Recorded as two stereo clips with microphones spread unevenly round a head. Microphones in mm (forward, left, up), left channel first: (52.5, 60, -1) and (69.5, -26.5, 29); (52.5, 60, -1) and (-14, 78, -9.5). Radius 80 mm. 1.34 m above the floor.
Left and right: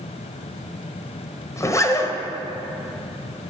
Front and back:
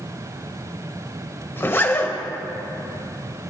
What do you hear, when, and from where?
1.6 s a zipper: 45° left, 1.2 m